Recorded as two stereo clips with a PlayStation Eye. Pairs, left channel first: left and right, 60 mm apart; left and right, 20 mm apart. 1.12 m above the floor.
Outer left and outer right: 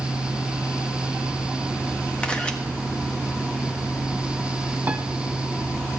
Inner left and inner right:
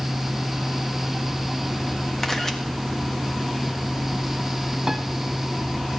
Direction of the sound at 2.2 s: 20° left (ahead or behind).